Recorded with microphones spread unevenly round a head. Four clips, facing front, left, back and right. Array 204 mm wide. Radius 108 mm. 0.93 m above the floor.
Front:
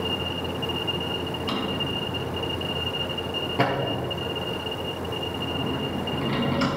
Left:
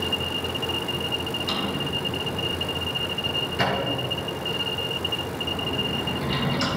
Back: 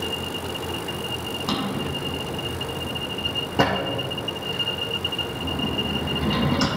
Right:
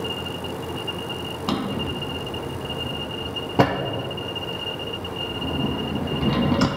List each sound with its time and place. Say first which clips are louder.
1.5 s a drawer: right 6 dB, back 4 dB; 110° right, 0.6 m